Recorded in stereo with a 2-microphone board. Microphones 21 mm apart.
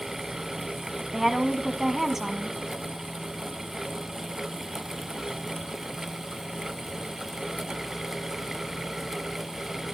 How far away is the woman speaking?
About 1.2 m.